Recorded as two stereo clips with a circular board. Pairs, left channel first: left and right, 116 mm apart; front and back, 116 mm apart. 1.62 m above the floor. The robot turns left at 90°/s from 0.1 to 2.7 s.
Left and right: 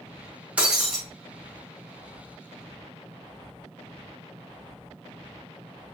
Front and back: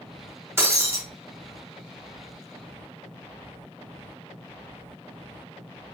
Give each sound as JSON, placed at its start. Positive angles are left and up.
{"t": 0.6, "sound": "breaking glass", "azimuth_deg": -155, "distance_m": 0.8}